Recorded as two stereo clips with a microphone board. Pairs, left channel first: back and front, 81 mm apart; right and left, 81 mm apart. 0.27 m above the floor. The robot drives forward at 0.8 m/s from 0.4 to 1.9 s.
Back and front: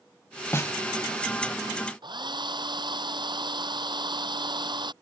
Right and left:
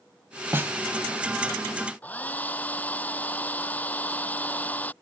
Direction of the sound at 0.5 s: 135° left.